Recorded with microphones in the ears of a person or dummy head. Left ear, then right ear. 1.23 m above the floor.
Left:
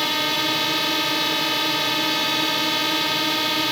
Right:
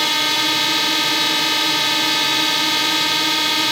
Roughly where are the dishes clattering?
I don't hear dishes clattering.